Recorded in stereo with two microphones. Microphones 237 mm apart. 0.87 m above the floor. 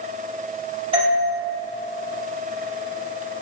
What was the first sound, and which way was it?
A doorbell, 25° right (ahead or behind).